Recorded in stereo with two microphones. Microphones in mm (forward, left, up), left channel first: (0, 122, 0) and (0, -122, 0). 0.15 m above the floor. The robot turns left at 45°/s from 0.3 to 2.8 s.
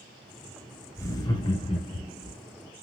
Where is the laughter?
10° left (ahead or behind), 1.1 m; by 2.3 s 25° left (ahead or behind), 1.1 m.